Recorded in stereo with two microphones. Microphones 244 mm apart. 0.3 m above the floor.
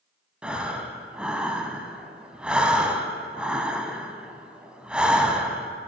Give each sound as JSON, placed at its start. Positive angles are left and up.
{"t": 0.4, "sound": "breathing", "side_deg": -5, "distance_m": 0.6}